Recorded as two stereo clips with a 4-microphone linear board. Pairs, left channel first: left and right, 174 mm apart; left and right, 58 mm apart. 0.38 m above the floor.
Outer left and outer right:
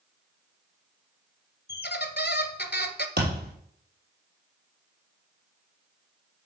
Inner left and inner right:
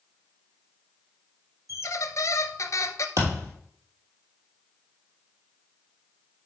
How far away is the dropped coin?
I don't hear a dropped coin.